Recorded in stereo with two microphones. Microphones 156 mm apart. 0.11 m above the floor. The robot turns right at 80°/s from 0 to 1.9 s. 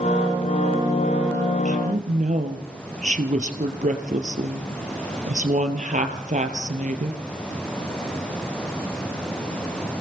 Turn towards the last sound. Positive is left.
turn(degrees=-60)  # may be behind; listen again after turning